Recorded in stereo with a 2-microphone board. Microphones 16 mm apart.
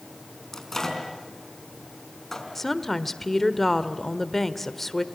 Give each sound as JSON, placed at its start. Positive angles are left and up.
{"t": 0.5, "sound": "a microwave", "side_deg": 35, "distance_m": 4.5}
{"t": 2.5, "sound": "a woman speaking", "side_deg": 15, "distance_m": 1.3}